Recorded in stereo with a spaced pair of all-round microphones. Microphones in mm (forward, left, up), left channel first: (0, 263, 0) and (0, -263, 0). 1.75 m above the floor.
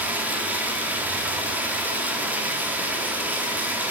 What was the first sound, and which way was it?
Running water, 5° right (ahead or behind).